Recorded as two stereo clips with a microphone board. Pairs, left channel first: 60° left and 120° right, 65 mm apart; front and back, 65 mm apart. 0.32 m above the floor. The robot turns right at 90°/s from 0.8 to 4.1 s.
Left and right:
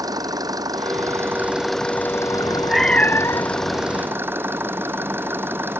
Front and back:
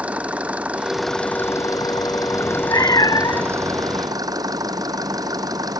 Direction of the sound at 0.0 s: 110° right.